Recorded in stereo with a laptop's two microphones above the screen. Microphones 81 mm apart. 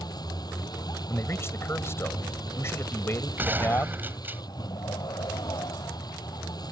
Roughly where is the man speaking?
Left.